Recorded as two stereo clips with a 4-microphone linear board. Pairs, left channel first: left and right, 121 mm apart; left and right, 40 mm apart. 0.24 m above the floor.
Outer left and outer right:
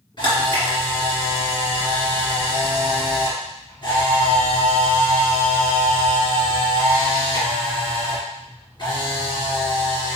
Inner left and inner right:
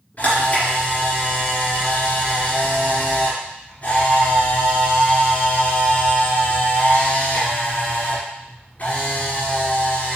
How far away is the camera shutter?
About 2.5 m.